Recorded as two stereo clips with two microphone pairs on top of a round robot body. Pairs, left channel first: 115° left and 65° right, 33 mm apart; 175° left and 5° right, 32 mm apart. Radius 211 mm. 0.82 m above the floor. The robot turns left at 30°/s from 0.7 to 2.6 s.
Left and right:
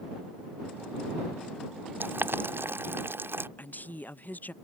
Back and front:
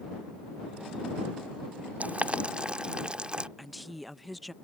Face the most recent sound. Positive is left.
turn(degrees=85)